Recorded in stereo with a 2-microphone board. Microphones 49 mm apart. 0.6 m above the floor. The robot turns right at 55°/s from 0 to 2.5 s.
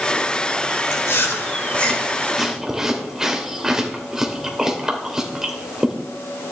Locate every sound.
0.9 s chewing: 60° left (ahead or behind), 2.5 m; by 5.9 s 10° right (ahead or behind), 2.5 m